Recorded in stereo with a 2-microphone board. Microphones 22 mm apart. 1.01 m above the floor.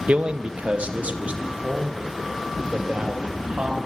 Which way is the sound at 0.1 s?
70° right (ahead or behind).